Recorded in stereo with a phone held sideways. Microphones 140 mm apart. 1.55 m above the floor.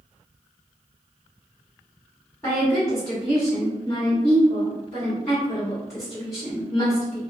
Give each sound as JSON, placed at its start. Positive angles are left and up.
{"t": 2.4, "sound": "a woman speaking", "side_deg": 20, "distance_m": 1.6}